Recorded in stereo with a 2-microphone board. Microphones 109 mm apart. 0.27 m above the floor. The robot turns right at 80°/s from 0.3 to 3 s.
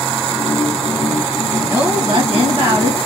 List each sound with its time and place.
1.6 s a woman speaking: 165° right, 2 m; by 3.0 s 60° right, 2 m